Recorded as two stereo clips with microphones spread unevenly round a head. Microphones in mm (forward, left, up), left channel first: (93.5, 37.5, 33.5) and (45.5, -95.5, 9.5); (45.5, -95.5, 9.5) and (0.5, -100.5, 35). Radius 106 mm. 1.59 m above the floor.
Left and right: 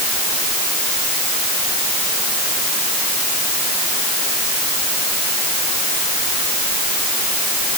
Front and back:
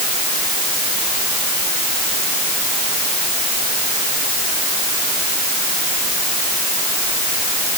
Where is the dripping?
No dripping in this recording.